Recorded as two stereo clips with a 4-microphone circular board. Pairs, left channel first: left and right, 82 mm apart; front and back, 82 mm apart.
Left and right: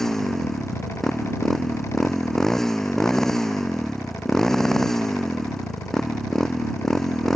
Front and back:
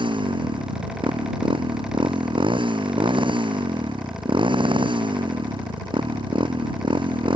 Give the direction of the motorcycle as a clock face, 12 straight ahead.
6 o'clock.